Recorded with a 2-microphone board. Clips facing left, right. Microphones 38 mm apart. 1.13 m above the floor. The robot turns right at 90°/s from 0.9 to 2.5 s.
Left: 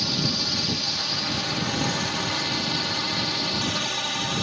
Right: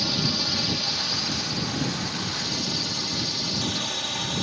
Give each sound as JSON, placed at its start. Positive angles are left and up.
{"t": 0.0, "sound": "a drone", "azimuth_deg": -5}